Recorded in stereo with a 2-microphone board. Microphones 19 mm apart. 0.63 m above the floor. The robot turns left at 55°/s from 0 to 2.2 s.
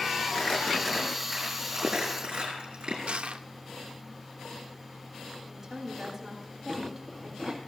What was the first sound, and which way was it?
Crumpling, 55° left (ahead or behind).